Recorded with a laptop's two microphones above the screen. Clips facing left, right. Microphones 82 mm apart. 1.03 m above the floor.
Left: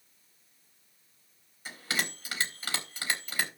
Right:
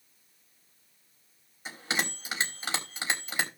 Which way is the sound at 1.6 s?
20° right (ahead or behind).